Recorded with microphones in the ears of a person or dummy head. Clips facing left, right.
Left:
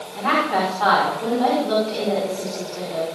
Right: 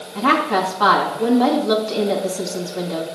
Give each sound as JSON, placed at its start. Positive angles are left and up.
{"t": 0.1, "sound": "a woman speaking", "side_deg": -60, "distance_m": 2.5}